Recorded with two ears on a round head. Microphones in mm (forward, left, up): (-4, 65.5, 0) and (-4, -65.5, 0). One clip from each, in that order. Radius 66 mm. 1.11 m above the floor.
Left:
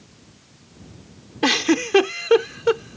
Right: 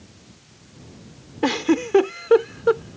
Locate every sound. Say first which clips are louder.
1.4 s a giggle: left 2 dB; 60° left (ahead or behind)